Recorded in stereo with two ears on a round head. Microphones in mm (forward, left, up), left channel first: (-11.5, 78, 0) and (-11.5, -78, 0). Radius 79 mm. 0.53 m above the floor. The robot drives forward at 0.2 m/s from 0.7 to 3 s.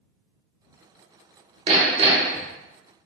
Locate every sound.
1.7 s hammering: 35° right (ahead or behind), 0.9 m; by 2.5 s 30° right (ahead or behind), 0.9 m